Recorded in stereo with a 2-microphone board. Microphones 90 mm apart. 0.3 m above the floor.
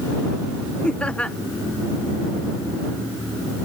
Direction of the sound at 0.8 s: 10° left (ahead or behind).